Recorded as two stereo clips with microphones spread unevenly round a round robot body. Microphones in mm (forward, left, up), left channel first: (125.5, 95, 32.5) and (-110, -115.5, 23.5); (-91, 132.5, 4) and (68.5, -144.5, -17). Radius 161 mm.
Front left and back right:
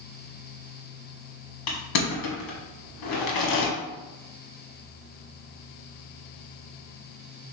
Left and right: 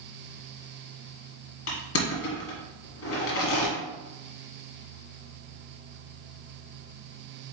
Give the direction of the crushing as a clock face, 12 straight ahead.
10 o'clock.